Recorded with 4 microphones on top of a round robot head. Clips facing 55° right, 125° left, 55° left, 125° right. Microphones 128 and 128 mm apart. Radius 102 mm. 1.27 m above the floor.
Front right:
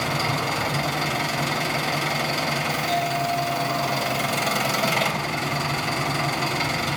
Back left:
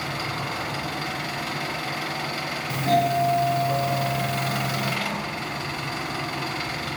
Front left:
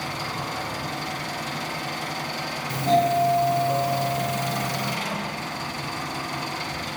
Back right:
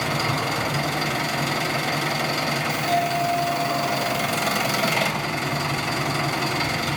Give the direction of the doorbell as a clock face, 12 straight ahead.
8 o'clock.